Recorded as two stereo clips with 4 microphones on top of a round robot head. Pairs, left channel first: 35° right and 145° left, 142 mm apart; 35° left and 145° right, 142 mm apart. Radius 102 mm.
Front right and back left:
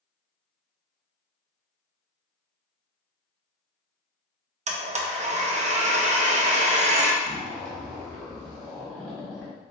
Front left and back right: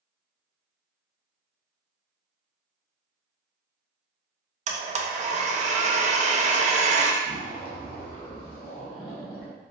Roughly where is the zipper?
Ahead left.